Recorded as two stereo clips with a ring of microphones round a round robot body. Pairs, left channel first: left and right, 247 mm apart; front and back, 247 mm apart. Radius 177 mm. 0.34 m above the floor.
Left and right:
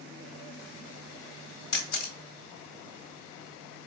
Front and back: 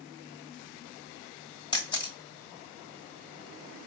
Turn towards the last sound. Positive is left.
turn(degrees=70)